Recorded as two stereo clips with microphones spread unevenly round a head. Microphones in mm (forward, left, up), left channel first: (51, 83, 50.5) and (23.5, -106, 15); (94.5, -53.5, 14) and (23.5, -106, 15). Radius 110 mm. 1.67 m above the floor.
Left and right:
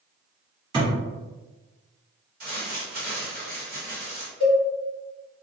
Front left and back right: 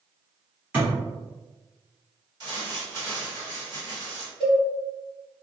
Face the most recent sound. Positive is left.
turn(degrees=135)